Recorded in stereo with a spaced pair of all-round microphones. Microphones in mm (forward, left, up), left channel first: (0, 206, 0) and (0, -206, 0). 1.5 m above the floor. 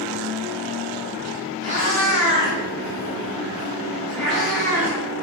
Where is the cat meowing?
35° left (ahead or behind), 1.2 m; by 5.0 s 5° right (ahead or behind), 1.7 m.